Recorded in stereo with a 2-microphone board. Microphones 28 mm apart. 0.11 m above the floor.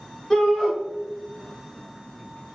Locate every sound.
0.3 s a shout: 35° left (ahead or behind), 1.2 m